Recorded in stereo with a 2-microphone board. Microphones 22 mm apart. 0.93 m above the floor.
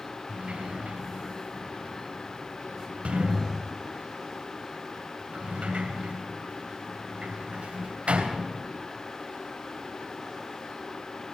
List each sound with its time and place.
0.3 s a sliding door: 75° right (ahead or behind), 3 m